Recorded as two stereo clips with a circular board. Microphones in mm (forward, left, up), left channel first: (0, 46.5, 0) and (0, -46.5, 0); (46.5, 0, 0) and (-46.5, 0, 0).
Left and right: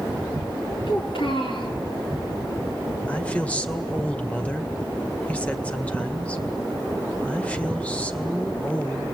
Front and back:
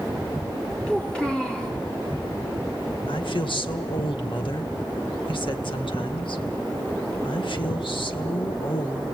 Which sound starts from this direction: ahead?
A woman speaking, at 3.1 s.